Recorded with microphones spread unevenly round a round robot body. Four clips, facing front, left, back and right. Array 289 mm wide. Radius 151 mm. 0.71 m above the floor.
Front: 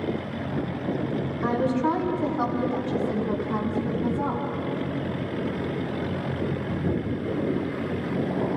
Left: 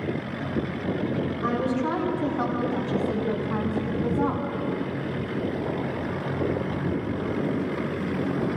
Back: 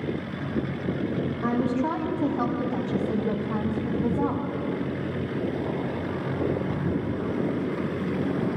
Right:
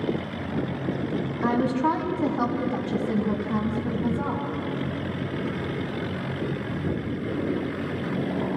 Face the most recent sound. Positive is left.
turn(degrees=-175)